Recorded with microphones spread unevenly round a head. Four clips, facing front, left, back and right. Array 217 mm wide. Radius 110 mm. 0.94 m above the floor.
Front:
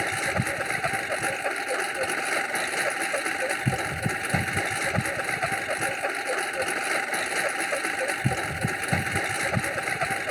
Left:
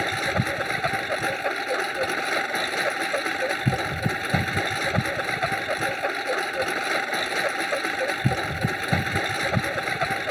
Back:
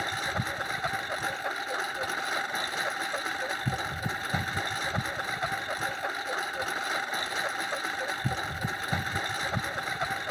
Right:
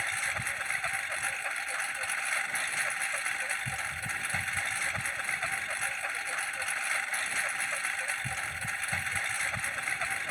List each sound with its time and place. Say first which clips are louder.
0.0 s a lawn mower: left 10 dB, front 4 dB; 65° left